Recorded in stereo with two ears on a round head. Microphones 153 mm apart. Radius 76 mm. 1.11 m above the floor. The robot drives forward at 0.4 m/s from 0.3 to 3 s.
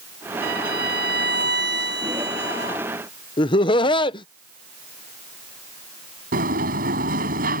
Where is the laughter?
30° left (ahead or behind).